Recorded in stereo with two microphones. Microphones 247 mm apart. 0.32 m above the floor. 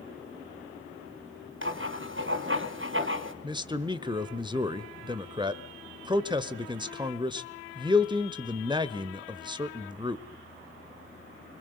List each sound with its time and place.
1.6 s writing: 50° right (ahead or behind), 1.5 m
3.4 s a man speaking: 20° right (ahead or behind), 0.9 m